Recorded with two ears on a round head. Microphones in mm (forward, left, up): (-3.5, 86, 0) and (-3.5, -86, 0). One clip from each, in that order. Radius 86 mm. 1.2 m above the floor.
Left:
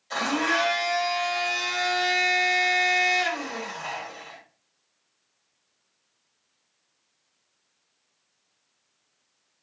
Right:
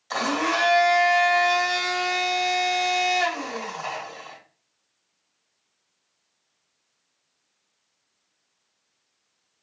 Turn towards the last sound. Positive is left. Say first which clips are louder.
# right 1 dB
turn(degrees=-30)  # may be behind; listen again after turning